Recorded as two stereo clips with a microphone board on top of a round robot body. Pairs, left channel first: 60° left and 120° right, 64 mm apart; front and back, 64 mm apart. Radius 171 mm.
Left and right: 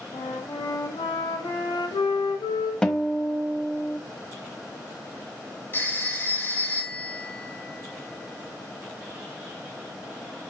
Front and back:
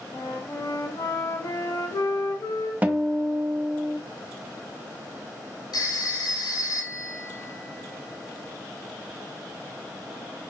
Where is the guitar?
130° left, 1.1 m.